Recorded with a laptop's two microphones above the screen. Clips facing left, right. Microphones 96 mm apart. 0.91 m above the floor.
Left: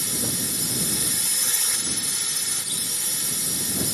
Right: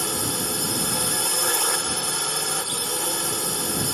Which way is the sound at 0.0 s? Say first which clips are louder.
Right 4 dB; 65° right (ahead or behind).